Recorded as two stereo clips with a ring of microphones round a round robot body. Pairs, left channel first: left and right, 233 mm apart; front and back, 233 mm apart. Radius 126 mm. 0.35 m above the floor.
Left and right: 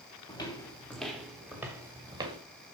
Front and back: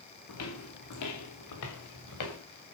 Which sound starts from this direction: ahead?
Footsteps, at 0.3 s.